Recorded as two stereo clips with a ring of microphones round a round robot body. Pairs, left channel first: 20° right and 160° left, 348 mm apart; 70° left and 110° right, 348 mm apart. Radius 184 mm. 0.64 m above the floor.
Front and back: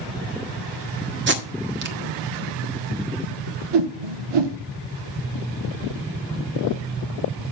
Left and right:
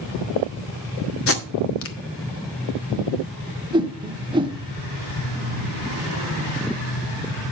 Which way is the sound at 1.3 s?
110° left.